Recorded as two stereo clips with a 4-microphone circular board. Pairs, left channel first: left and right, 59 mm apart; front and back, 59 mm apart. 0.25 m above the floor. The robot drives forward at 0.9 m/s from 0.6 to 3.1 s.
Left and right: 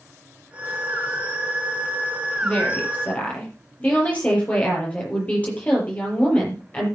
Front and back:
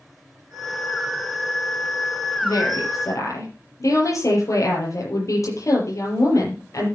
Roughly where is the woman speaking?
Ahead left.